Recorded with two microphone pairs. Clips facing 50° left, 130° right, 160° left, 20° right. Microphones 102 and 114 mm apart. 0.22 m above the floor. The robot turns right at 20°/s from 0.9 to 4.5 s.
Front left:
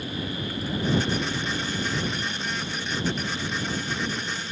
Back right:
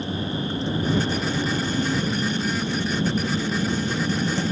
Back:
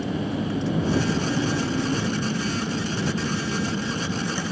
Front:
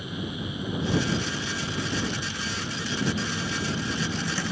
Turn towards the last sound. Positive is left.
turn(degrees=-120)